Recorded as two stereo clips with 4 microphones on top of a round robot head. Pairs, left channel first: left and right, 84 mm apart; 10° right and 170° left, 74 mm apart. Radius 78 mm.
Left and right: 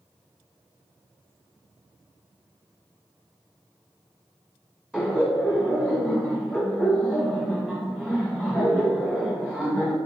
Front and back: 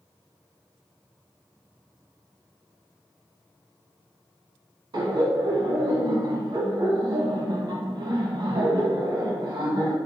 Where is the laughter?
Straight behind, 1.2 m.